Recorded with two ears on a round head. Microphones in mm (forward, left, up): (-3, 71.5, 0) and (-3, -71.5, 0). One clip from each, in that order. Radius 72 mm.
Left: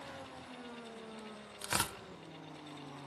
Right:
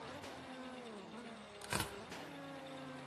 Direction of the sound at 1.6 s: 30° left (ahead or behind).